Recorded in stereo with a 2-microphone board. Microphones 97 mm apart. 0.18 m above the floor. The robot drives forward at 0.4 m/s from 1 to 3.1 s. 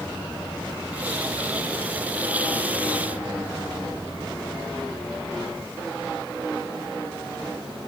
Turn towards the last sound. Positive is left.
No sound to turn to.